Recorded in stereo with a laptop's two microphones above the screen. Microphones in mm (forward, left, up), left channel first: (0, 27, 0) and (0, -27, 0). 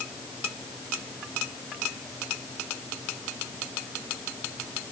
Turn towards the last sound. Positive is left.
No sound to turn to.